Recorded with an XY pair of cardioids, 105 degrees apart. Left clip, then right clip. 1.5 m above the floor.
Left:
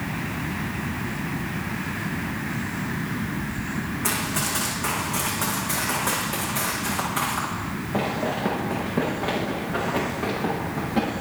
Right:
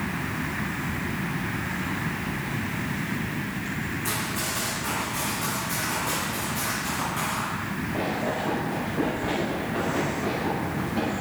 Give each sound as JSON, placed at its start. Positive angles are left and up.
{"t": 4.0, "sound": "running footsteps", "azimuth_deg": 60, "distance_m": 6.5}